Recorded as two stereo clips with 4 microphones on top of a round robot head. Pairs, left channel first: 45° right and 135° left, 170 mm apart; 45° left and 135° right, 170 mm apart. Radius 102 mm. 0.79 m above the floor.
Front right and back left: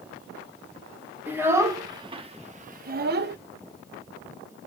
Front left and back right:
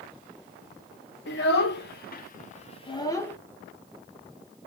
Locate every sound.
1.3 s a child speaking: 55° left, 1.5 m; by 3.4 s 125° left, 1.0 m